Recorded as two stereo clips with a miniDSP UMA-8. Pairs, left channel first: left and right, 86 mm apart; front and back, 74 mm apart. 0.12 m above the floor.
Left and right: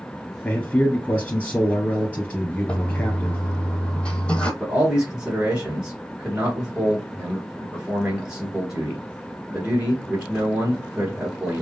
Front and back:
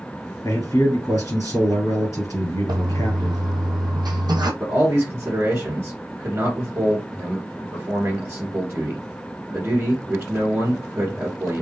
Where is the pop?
No pop in this recording.